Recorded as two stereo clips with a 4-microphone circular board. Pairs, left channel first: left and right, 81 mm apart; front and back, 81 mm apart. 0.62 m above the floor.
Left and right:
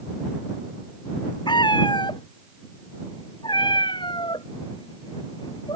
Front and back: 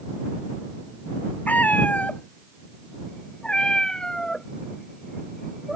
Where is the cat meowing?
70° left; by 5.8 s 90° left.